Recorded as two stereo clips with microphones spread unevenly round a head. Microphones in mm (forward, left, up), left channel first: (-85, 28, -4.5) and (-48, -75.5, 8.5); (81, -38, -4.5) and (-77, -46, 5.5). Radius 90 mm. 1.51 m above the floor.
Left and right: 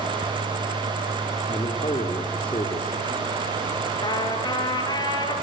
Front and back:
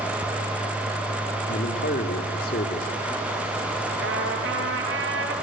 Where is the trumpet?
160° left, 6.5 m.